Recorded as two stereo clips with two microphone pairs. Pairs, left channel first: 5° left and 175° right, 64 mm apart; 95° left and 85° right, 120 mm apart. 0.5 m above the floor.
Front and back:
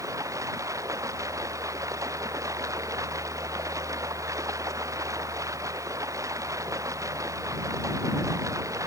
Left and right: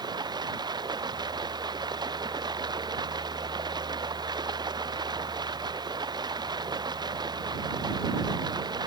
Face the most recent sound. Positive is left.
turn(degrees=-140)